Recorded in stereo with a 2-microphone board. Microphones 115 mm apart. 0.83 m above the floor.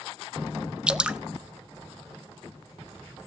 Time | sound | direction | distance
0.9 | dripping | 10° right (ahead or behind) | 0.6 m